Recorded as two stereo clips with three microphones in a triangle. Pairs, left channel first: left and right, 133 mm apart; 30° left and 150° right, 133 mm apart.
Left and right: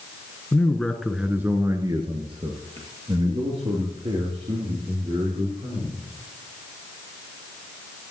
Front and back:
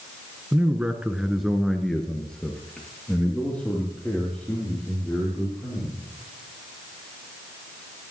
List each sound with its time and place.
0.5 s a man speaking: 145° left, 1.3 m; by 6.0 s 50° right, 5 m